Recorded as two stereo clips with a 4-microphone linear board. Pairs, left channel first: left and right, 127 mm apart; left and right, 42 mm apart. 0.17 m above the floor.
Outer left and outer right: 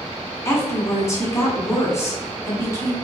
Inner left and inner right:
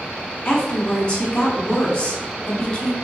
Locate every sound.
0.5 s a woman speaking: 20° left (ahead or behind), 1.3 m